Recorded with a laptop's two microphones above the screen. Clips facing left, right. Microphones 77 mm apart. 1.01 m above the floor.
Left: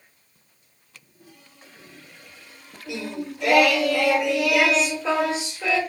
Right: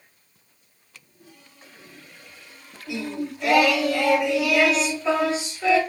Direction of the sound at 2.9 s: 90° left.